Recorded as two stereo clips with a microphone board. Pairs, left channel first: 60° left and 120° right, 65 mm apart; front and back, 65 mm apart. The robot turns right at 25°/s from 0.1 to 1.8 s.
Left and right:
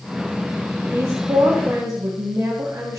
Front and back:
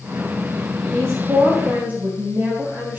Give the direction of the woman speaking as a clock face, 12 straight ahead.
5 o'clock.